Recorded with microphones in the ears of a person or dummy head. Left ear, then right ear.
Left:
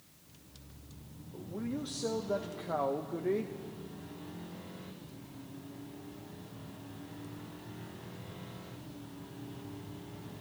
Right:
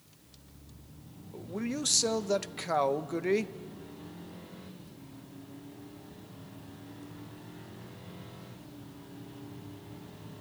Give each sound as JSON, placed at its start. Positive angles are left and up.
{"t": 1.3, "sound": "a man speaking", "side_deg": -75, "distance_m": 0.9}